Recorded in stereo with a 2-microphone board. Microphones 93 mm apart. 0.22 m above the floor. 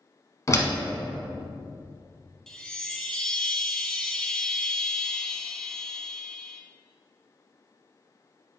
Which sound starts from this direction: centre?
A chime, at 2.5 s.